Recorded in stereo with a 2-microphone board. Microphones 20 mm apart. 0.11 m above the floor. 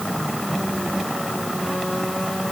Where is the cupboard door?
I don't hear a cupboard door.